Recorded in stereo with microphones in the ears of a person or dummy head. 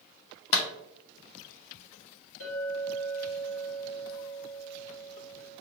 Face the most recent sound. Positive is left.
turn(degrees=60)  # may be behind; listen again after turning